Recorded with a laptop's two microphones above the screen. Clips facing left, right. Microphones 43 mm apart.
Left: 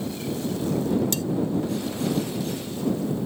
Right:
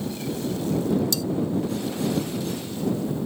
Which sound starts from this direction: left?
Cutlery clinking, at 1.1 s.